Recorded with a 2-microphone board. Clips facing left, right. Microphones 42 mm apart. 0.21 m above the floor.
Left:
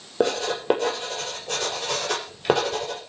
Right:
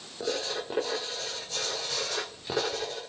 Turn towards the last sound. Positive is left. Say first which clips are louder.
# left 8 dB
turn(degrees=65)  # may be behind; listen again after turning